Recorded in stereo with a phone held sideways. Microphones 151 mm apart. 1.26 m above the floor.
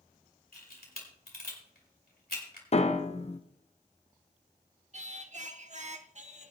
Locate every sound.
0.5 s a camera shutter: 85° left, 2.5 m
2.7 s a piano: 45° left (ahead or behind), 0.6 m
4.9 s singing: 50° right (ahead or behind), 0.8 m